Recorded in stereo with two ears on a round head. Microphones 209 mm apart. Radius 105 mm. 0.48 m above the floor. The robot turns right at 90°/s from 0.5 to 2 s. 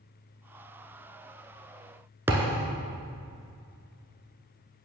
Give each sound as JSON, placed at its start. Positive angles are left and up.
{"t": 2.3, "sound": "a thud", "side_deg": -10, "distance_m": 1.0}